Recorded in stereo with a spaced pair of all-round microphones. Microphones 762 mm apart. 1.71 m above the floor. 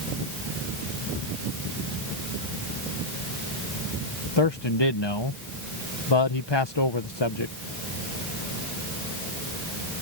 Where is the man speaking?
35° left (ahead or behind).